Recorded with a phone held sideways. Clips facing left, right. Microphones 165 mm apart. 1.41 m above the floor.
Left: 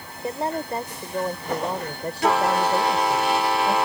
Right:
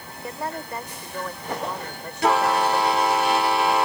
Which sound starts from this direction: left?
A woman speaking, at 0.2 s.